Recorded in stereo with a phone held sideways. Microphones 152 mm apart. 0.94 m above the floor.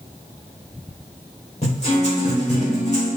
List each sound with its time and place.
1.6 s a guitar: 45° left (ahead or behind), 3.5 m